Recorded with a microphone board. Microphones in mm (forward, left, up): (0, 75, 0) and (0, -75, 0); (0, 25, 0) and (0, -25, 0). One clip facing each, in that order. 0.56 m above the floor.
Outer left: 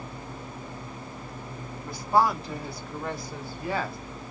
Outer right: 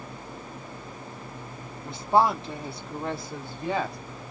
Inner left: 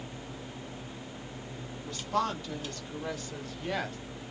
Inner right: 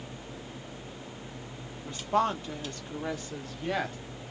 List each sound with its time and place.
1.9 s a woman speaking: 25° right (ahead or behind), 1.0 m; by 4.0 s 20° right (ahead or behind), 1.7 m